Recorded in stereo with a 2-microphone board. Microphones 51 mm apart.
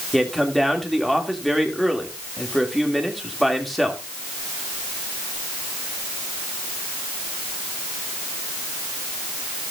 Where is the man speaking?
5° left (ahead or behind), 2.0 m.